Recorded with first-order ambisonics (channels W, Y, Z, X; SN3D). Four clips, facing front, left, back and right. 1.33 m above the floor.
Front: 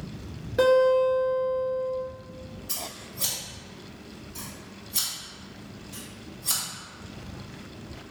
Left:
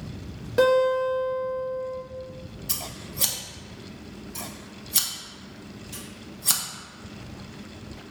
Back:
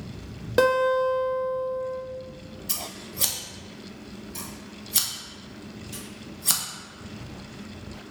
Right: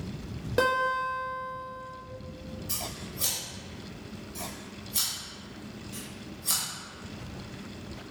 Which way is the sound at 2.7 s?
130° left.